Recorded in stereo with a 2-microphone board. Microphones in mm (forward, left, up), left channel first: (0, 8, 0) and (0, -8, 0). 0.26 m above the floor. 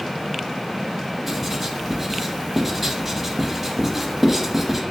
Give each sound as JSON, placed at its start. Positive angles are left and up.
{"t": 1.3, "sound": "writing", "side_deg": -15, "distance_m": 0.5}